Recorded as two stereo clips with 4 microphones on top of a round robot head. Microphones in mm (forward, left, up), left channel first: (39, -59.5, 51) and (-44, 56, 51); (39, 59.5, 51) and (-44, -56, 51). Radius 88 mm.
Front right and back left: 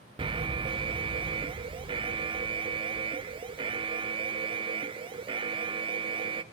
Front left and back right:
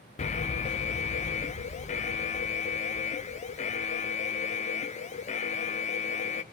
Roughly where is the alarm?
Left.